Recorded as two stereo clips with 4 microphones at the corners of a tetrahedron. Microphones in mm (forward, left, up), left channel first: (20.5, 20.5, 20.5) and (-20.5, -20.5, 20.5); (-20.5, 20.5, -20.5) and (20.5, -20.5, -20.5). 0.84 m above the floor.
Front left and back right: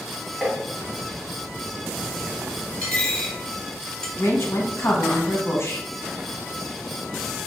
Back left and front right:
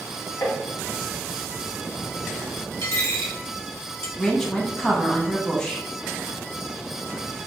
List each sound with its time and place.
0.4 s tapping: 150° left, 0.9 m
2.8 s a dropped coin: 115° left, 1.0 m
4.2 s a woman speaking: 60° left, 0.8 m